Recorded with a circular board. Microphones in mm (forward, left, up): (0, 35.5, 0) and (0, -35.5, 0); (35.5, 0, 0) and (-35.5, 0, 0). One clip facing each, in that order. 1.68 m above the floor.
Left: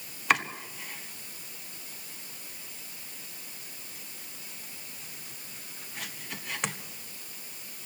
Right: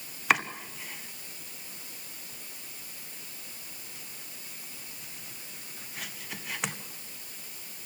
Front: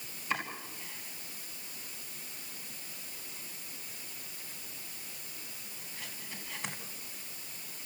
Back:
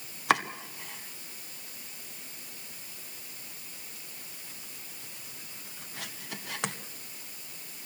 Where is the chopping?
Straight behind, 1.7 m.